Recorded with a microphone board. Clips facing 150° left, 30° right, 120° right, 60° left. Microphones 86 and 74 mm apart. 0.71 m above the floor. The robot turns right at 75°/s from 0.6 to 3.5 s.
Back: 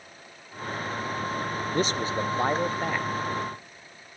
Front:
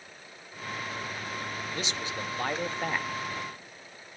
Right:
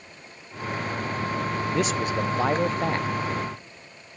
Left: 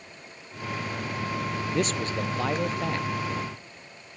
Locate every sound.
1.7 s a man speaking: 145° left, 0.5 m; by 3.1 s 115° right, 0.5 m